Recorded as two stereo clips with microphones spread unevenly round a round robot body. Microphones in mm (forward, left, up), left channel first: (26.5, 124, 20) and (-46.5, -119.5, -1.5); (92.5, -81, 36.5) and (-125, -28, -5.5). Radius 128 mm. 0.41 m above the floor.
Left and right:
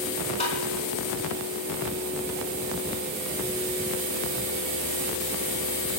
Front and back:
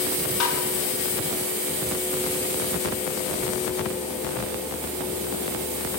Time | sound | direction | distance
0.4 | tapping | 5° left | 4 m